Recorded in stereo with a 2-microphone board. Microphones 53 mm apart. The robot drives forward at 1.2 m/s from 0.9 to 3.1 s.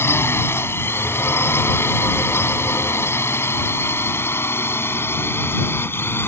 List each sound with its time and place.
0.0 s a drone: 50° left (ahead or behind); by 6.3 s 45° left (ahead or behind)